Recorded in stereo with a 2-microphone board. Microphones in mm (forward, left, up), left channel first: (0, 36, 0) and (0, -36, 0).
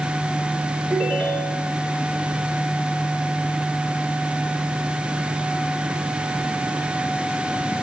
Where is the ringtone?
5° left (ahead or behind), 9 m.